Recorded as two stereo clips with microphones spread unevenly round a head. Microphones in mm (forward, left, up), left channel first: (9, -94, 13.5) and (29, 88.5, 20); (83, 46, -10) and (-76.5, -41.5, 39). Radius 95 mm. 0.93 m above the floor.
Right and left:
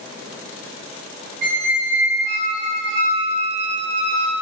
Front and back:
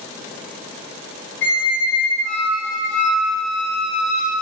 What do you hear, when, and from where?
1.4 s a squeak: 55° left, 2.5 m